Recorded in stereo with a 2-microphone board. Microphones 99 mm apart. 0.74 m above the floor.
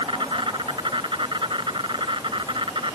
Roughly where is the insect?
Right.